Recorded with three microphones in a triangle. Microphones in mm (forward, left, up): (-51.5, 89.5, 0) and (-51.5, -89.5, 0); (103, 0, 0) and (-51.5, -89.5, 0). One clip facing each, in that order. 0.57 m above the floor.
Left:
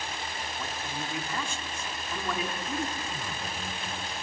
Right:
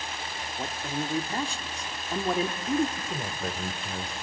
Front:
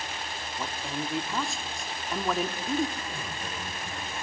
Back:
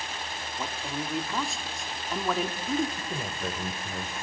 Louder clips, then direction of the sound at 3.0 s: Right 3 dB, back 3 dB; 115° right.